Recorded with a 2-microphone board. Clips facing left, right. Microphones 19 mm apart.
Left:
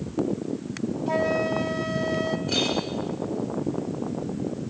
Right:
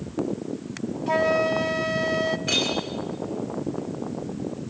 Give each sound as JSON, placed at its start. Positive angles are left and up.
{"t": 1.1, "sound": "a flute", "side_deg": -20, "distance_m": 0.8}
{"t": 2.5, "sound": "a clink", "side_deg": -65, "distance_m": 10.0}